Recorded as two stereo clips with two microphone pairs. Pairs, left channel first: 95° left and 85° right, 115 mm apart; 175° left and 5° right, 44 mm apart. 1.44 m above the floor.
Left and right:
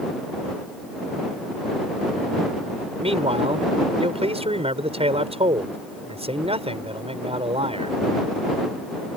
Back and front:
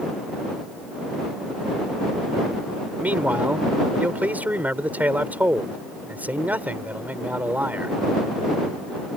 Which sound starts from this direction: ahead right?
A man speaking, at 3.0 s.